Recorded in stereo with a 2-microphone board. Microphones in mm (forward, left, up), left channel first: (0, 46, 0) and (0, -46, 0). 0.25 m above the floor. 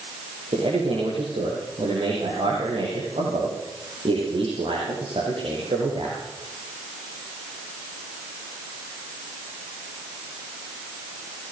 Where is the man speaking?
80° right, 9.5 m.